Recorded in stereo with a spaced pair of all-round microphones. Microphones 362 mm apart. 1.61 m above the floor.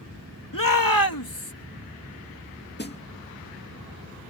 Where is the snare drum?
30° left (ahead or behind).